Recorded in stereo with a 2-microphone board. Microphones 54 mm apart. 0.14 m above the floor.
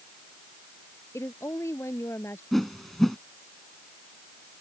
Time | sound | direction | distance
1.1 | a woman speaking | 60° left (ahead or behind) | ?
2.5 | a whoosh | 5° left (ahead or behind) | ?